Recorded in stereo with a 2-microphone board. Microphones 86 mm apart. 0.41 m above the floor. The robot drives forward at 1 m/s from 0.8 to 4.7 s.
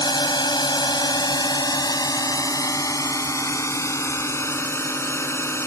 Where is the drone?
55° left (ahead or behind); by 5.7 s 30° left (ahead or behind).